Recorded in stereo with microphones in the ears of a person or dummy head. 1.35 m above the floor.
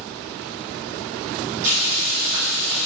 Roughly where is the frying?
Right.